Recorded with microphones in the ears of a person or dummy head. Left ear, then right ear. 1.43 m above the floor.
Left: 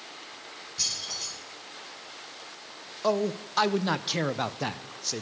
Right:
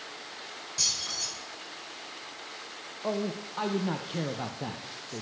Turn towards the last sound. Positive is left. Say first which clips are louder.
# left 6 dB
turn(degrees=60)  # may be behind; listen again after turning